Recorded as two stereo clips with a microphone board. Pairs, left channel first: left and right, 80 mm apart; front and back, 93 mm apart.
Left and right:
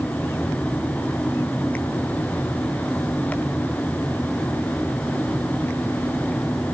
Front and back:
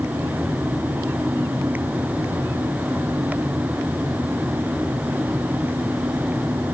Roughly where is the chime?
No chime in this recording.